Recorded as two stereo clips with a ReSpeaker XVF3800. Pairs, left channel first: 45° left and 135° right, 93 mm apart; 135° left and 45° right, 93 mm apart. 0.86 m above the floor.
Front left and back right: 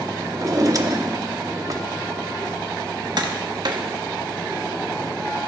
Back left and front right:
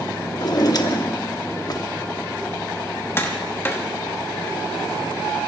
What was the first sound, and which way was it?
A drawer, 175° left.